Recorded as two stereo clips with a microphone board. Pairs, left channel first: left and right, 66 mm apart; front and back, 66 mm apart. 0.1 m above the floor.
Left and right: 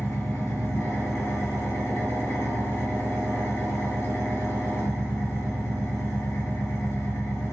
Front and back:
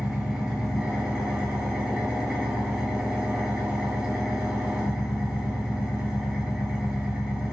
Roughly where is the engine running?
Left.